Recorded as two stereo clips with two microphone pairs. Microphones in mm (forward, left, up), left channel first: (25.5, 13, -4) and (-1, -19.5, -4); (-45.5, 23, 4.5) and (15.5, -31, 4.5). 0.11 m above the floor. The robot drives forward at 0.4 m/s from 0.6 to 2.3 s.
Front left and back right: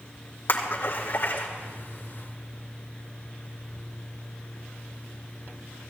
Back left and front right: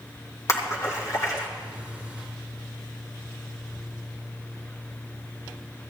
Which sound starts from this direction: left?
A splash, at 0.5 s.